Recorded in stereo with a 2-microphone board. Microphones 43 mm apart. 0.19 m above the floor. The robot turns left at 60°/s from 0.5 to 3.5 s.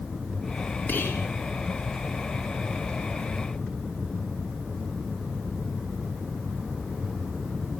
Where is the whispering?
55° left (ahead or behind), 2 m; by 1.3 s 60° left (ahead or behind), 2 m.